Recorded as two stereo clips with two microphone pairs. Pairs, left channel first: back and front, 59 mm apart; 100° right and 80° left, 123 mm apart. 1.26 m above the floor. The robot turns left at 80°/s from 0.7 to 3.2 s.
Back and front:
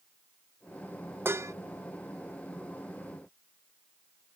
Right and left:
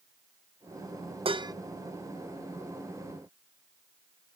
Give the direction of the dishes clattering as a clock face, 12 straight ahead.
11 o'clock.